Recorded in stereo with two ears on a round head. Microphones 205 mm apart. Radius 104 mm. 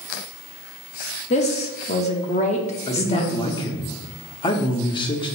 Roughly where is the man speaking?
Left.